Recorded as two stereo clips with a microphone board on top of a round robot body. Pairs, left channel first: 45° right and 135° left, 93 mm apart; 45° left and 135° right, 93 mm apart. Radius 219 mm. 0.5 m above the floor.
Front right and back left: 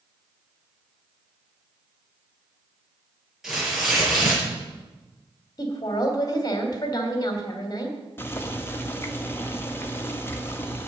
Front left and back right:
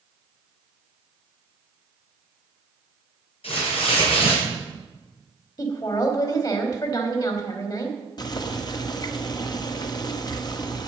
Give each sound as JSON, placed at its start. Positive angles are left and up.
{"t": 3.4, "sound": "tearing paper", "azimuth_deg": 45, "distance_m": 6.5}
{"t": 5.6, "sound": "a woman speaking", "azimuth_deg": 0, "distance_m": 3.0}
{"t": 8.2, "sound": "boiling", "azimuth_deg": 15, "distance_m": 2.0}